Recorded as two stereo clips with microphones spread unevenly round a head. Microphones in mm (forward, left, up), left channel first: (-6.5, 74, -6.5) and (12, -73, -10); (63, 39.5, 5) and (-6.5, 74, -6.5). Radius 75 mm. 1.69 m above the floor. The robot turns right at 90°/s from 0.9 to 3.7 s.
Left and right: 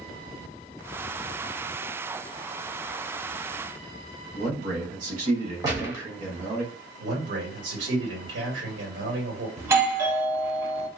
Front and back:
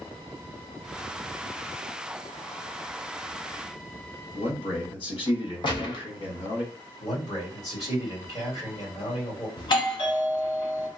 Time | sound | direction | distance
4.3 | a man speaking | 40° right | 1.6 m
5.6 | a gunshot | 15° right | 1.0 m
7.0 | a man speaking | 85° right | 1.8 m
9.6 | a doorbell | 15° right | 1.2 m